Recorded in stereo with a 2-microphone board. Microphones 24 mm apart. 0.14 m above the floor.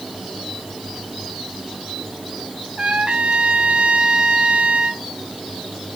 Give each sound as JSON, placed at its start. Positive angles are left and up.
{"t": 2.8, "sound": "a trumpet", "side_deg": -50, "distance_m": 1.4}